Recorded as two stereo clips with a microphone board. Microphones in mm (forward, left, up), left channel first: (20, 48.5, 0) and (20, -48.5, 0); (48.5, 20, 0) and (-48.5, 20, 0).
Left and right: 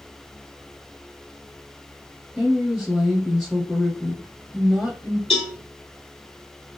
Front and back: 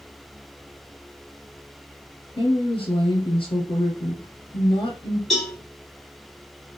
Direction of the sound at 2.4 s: Straight ahead.